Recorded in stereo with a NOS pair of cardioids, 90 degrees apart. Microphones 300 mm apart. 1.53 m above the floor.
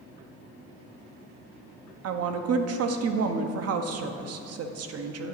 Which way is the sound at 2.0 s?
55° right.